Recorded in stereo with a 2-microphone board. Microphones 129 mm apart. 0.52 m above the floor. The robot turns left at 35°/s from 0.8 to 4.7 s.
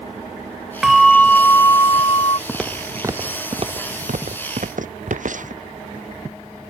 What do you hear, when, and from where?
0.8 s a bell: 175° right; by 2.4 s 130° left
2.5 s footsteps: 5° left (ahead or behind); by 5.6 s 75° right (ahead or behind)